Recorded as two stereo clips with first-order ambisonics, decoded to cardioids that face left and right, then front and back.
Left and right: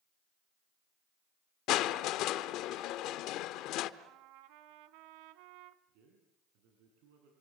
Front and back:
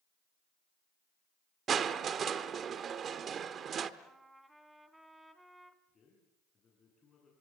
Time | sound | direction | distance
1.7 | crushing | 120° left | 1.0 m
4.0 | a trumpet | 95° right | 1.5 m
5.9 | a man speaking | 70° right | 6 m